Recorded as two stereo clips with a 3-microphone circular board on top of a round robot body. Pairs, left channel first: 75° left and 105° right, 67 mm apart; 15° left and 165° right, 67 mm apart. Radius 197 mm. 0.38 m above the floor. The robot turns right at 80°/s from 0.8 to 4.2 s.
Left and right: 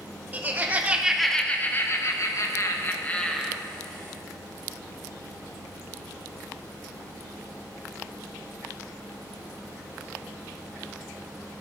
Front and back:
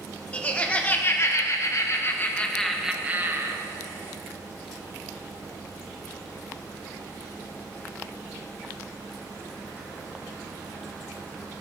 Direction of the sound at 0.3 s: 50° right.